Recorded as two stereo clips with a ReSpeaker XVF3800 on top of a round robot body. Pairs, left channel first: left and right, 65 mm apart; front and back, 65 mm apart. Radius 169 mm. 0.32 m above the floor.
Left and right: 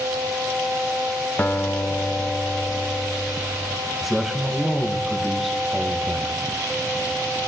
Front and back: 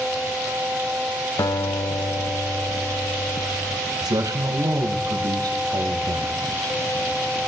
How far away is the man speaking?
About 4 m.